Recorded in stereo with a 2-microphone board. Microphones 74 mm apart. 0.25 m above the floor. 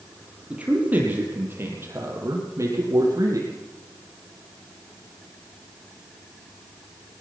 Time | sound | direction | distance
0.5 | a man speaking | 20° right (ahead or behind) | 6.5 m